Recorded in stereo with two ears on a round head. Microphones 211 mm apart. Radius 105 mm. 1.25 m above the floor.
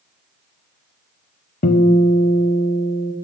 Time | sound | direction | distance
1.6 | a guitar | 35° left (ahead or behind) | 0.8 m